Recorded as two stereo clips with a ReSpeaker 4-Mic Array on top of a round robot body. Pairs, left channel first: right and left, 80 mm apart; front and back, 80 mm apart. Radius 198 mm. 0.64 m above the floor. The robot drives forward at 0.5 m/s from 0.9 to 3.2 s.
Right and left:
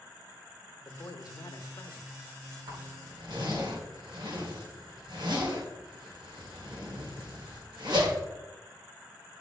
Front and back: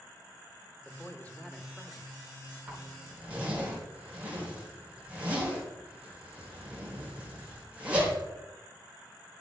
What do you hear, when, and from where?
0.8 s a man speaking: 60° right, 1.3 m; by 2.6 s 110° right, 1.2 m
2.7 s a zipper: 105° left, 3 m; by 8.2 s 110° left, 3 m